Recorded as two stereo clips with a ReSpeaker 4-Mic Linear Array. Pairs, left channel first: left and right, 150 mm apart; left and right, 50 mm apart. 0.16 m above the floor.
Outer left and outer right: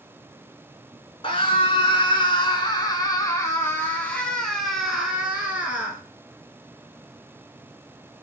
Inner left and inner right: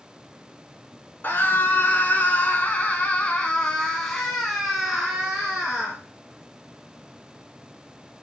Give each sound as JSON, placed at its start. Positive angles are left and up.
{"t": 1.2, "sound": "a scream", "side_deg": 40, "distance_m": 1.6}